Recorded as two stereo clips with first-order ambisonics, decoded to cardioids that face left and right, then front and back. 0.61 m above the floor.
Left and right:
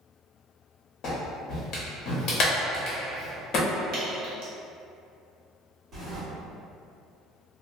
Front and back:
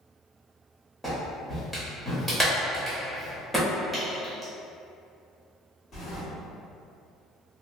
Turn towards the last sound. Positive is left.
turn(degrees=-45)